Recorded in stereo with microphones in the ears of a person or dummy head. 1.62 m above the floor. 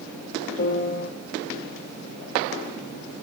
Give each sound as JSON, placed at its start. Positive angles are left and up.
{"t": 0.6, "sound": "a piano", "side_deg": 50, "distance_m": 0.7}